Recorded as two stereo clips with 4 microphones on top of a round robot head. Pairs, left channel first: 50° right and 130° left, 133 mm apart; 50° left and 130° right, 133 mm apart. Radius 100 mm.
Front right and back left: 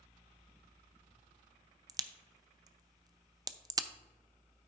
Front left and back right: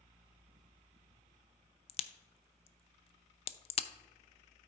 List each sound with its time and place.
1.9 s a crack: 75° left, 0.5 m